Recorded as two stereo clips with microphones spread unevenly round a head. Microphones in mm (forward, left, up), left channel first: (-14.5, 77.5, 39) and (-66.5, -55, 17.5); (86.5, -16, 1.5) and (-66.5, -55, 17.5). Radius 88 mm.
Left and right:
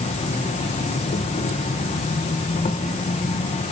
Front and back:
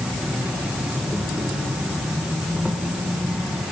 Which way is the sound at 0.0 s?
110° left.